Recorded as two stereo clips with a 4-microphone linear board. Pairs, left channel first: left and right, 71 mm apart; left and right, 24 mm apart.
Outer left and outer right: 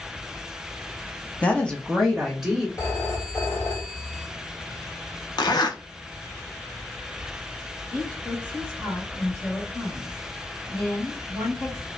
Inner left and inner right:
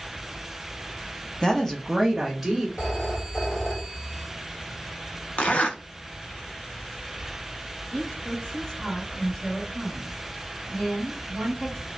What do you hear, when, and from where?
1.4 s a woman speaking: 20° left (ahead or behind), 0.5 m; by 2.7 s 5° right (ahead or behind), 0.9 m
2.8 s a phone ringing: 35° left (ahead or behind), 1.3 m
5.4 s a zipper: 75° left (ahead or behind), 0.5 m
7.9 s a woman speaking: 25° left (ahead or behind), 1.1 m